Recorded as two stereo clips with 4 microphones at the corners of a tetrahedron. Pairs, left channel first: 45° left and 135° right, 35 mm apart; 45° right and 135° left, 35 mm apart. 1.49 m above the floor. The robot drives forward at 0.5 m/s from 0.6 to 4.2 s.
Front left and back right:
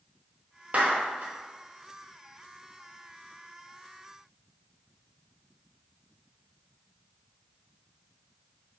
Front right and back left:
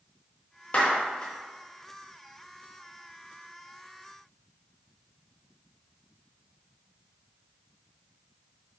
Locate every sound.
0.7 s a clap: 95° right, 1.3 m; by 1.3 s 110° right, 1.4 m